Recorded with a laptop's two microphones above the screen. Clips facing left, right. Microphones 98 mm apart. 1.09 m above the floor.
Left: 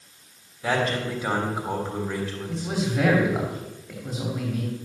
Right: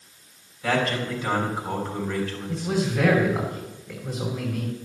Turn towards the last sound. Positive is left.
turn(degrees=15)  # may be behind; listen again after turning